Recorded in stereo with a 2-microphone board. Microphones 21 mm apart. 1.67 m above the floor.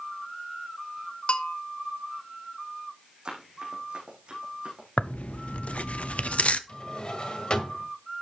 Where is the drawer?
45° left (ahead or behind), 2.0 m.